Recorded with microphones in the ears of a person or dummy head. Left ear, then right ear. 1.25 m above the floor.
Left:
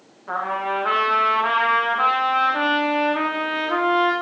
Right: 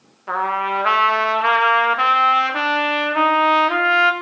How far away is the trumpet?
About 0.8 m.